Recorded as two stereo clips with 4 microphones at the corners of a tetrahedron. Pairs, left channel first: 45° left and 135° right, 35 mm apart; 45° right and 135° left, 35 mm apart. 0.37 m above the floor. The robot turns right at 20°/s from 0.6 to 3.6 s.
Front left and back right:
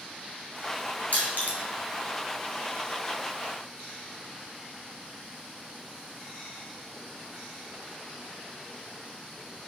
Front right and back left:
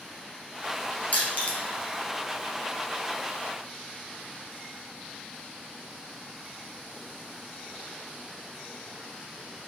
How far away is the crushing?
About 2 m.